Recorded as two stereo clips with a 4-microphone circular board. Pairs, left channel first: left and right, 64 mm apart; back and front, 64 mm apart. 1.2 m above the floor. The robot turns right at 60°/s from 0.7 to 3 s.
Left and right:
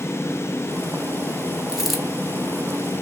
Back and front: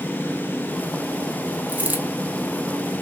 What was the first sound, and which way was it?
A dropped coin, 15° right.